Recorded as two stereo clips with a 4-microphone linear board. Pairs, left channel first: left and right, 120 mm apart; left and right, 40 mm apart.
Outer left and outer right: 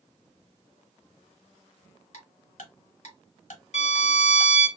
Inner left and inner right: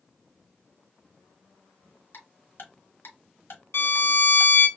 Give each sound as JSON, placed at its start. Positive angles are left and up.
{"t": 2.1, "sound": "ticking", "side_deg": 80, "distance_m": 1.1}
{"t": 3.7, "sound": "a violin", "side_deg": 65, "distance_m": 0.6}